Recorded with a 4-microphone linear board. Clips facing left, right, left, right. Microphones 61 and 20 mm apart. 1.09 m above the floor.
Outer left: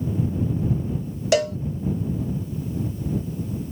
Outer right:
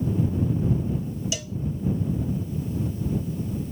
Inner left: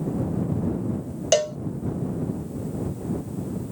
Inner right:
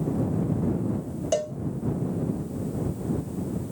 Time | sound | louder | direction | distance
1.3 | a cowbell | outer left 14 dB, inner left 6 dB | 60° left (ahead or behind) | ?